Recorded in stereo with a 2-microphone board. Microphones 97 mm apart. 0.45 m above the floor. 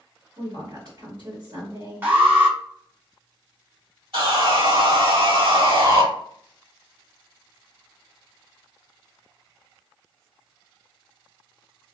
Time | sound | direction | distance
0.4 | a woman speaking | 45° right (ahead or behind) | 1.7 m
2.0 | an alarm | 20° right (ahead or behind) | 1.3 m
4.1 | sawing | 65° right (ahead or behind) | 1.6 m